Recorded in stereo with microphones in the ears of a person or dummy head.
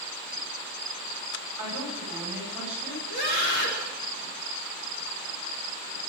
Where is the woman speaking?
5° right (ahead or behind), 9.5 m.